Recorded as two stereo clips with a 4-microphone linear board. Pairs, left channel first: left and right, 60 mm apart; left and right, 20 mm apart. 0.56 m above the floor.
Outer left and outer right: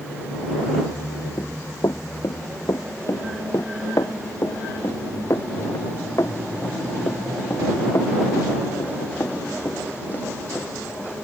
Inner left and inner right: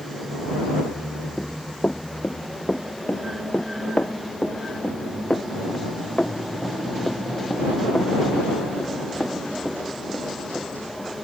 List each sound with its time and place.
1.4 s running footsteps: 80° left; by 11.1 s 50° left (ahead or behind)